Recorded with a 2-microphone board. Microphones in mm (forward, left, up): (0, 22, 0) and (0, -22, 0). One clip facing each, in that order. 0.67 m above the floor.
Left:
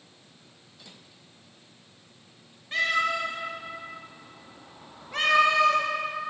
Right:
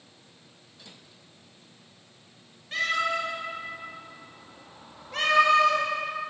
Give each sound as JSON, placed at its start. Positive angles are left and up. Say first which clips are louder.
{"t": 2.7, "sound": "a cat meowing", "louder": "left 1 dB", "side_deg": 10, "distance_m": 3.0}